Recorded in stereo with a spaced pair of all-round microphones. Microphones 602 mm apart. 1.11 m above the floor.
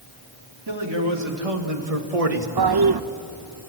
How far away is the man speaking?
About 3 m.